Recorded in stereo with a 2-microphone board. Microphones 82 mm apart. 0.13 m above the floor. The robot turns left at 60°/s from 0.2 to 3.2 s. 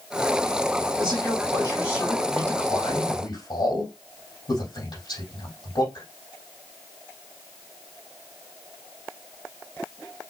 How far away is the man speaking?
About 4.5 m.